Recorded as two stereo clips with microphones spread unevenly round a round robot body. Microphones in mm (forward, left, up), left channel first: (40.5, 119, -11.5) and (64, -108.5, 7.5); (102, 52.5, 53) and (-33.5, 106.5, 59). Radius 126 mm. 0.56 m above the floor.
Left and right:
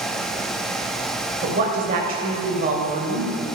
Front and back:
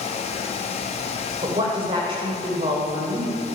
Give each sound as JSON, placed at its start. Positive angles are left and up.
{"t": 1.4, "sound": "a woman speaking", "azimuth_deg": -140, "distance_m": 3.0}